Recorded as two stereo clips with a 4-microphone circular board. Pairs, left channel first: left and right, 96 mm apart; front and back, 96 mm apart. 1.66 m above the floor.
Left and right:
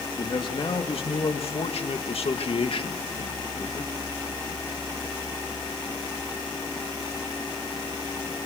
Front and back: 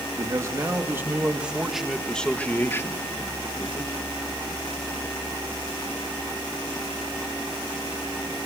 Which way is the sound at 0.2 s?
125° left.